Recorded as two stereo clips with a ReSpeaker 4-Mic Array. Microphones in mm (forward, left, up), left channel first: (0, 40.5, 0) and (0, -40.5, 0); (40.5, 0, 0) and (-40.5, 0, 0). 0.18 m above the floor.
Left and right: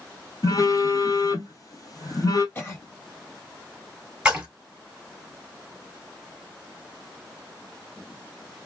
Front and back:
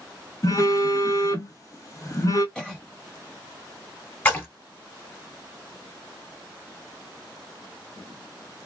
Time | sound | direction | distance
0.4 | a phone buzzing | 45° left | 1.1 m
2.5 | a cough | 65° left | 1.6 m
4.2 | a splash | 30° right | 1.8 m